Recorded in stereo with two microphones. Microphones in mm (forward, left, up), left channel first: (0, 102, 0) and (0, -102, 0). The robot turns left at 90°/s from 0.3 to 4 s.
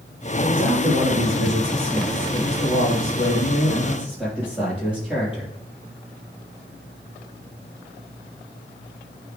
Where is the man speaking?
40° right, 5.5 m; by 5.5 s 5° right, 5.5 m.